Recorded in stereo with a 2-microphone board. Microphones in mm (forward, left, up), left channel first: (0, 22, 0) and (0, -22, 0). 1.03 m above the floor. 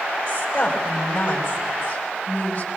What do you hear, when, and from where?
0.3 s a woman speaking: 30° left (ahead or behind), 5.5 m